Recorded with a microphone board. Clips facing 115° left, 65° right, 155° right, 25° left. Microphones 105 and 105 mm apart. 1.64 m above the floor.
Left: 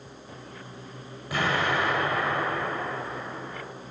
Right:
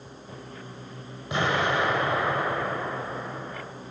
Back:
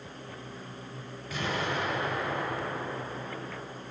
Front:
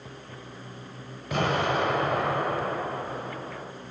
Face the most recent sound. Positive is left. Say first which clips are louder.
# right 1 dB, front 7 dB
turn(degrees=0)